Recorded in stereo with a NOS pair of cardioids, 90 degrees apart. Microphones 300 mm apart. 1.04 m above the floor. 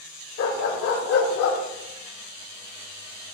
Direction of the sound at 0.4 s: 55° left.